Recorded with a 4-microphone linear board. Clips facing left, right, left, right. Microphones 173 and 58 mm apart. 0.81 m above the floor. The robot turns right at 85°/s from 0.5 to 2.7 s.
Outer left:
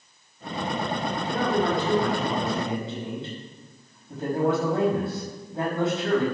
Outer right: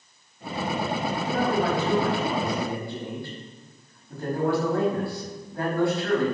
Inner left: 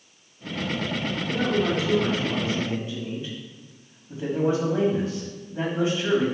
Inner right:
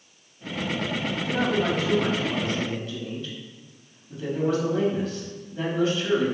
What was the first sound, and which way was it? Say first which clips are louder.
A man speaking: even, even; 105° right.